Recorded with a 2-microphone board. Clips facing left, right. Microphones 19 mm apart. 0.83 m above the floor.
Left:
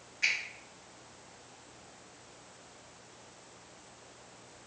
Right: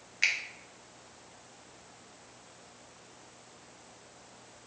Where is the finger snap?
40° right (ahead or behind), 0.5 m.